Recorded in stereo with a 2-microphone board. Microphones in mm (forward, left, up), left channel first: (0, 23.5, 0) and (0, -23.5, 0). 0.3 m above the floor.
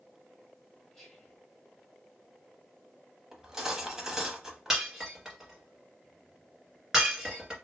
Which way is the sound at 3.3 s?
15° right (ahead or behind).